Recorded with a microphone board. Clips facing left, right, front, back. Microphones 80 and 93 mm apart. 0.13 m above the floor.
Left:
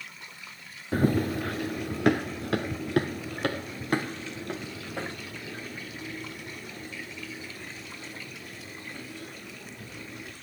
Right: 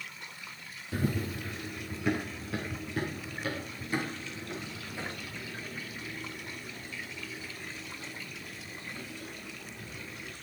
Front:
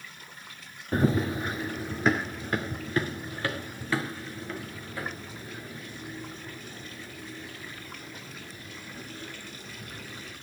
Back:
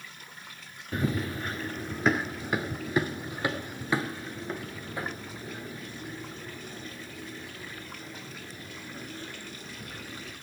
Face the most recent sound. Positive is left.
turn(degrees=120)